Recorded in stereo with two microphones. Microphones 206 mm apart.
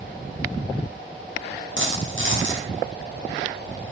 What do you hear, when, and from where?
1.8 s a dropped coin: 70° right (ahead or behind), 8.5 m